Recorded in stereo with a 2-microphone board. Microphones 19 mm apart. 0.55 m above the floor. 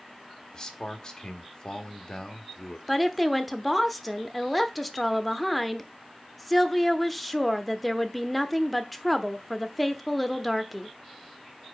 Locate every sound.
0.5 s a man speaking: 30° left (ahead or behind), 1.3 m
2.9 s a woman speaking: centre (ahead or behind), 0.7 m